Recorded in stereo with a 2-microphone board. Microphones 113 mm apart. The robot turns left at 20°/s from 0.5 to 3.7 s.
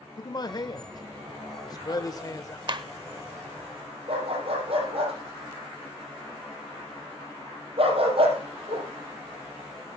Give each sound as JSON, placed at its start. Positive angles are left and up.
{"t": 0.2, "sound": "a man speaking", "azimuth_deg": 100, "distance_m": 0.9}
{"t": 2.7, "sound": "a clap", "side_deg": -45, "distance_m": 0.9}
{"t": 4.1, "sound": "a dog barking", "side_deg": -55, "distance_m": 5.5}